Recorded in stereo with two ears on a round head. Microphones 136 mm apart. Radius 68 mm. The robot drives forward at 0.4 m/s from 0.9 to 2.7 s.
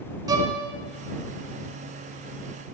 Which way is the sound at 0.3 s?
25° right (ahead or behind).